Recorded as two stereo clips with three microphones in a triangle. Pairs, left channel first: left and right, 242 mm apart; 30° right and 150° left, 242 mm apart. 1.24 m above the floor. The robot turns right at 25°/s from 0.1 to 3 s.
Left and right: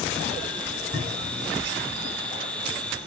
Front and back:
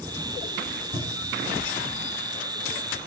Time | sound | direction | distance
0.9 | a cupboard door | 150° right | 3 m